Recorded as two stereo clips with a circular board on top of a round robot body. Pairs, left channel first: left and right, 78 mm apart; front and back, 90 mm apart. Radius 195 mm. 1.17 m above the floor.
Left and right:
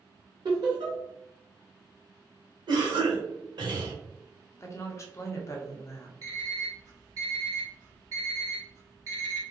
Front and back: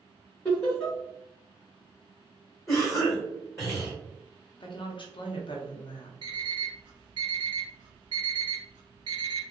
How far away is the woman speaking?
About 0.7 m.